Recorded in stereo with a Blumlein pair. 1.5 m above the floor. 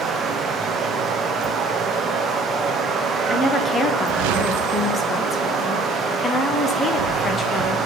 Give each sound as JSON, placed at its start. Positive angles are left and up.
{"t": 0.0, "sound": "running water", "azimuth_deg": -20, "distance_m": 0.8}
{"t": 3.3, "sound": "a woman speaking", "azimuth_deg": 15, "distance_m": 1.3}